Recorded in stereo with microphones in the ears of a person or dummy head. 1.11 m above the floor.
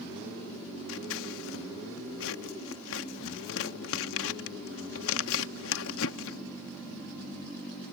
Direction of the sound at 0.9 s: 65° left (ahead or behind).